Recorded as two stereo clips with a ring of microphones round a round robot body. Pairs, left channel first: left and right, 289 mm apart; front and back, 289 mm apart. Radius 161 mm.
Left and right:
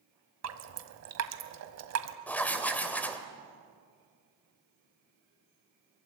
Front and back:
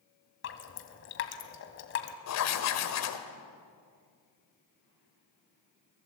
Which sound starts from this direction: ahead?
Writing, at 2.3 s.